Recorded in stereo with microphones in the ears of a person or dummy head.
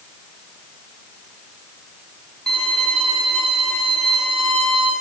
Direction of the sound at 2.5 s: Centre (ahead or behind).